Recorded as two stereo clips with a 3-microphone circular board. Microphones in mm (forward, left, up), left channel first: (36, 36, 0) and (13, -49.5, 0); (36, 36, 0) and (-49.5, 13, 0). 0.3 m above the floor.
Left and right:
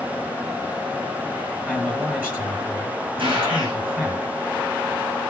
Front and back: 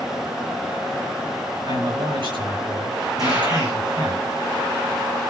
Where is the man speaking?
175° right, 6 m.